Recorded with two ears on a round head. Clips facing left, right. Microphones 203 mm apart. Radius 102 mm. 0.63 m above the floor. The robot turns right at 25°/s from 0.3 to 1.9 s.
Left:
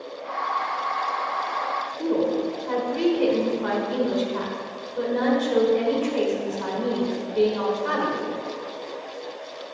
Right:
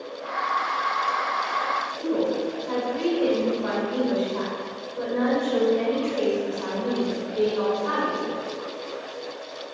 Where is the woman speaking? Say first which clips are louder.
Left 1 dB; 55° left (ahead or behind), 2 m.